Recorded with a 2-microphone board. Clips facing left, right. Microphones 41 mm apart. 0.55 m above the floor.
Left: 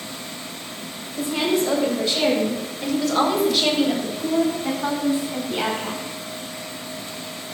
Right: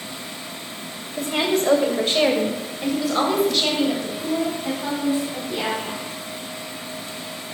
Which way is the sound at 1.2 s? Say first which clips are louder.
Even; 65° right (ahead or behind).